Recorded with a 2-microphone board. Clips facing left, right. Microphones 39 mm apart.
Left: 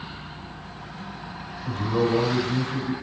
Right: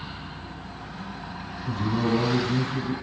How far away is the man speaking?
About 3 m.